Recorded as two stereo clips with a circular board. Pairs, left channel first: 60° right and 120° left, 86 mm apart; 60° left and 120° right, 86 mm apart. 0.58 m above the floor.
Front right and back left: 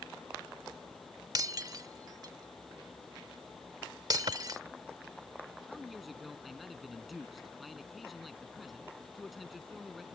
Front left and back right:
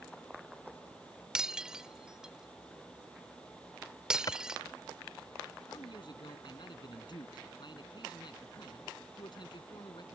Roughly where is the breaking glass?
Behind.